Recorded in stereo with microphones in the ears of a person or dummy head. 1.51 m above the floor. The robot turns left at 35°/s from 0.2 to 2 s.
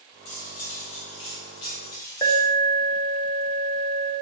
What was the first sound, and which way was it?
Cutlery clinking, 25° left (ahead or behind).